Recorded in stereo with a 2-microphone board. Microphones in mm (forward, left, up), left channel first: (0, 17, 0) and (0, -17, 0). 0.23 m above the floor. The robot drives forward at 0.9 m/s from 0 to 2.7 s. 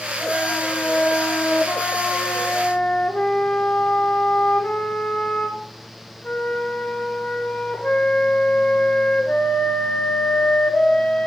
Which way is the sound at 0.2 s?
35° left (ahead or behind).